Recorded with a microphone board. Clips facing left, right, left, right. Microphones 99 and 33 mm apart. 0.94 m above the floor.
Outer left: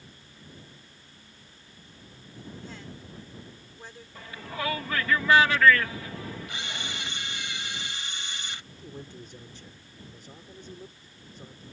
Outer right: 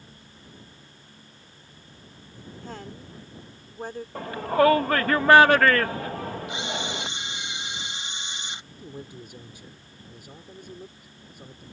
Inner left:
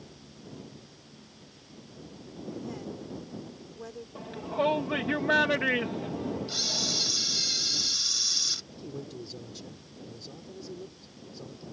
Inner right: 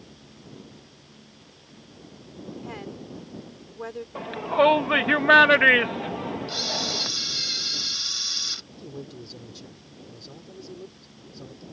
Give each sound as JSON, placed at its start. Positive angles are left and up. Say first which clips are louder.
{"t": 2.6, "sound": "a woman speaking", "louder": "outer right 4 dB, inner right 1 dB", "side_deg": -50}
{"t": 4.2, "sound": "a shout", "louder": "outer right 15 dB, inner right 9 dB", "side_deg": -55}
{"t": 6.5, "sound": "a camera shutter", "louder": "outer right 7 dB, inner right 6 dB", "side_deg": -20}
{"t": 8.7, "sound": "a man speaking", "louder": "outer right 3 dB, inner right 1 dB", "side_deg": -10}